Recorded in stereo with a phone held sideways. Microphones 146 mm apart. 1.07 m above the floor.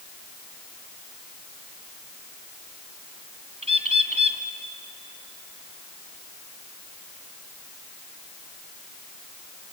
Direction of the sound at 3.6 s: 50° right (ahead or behind).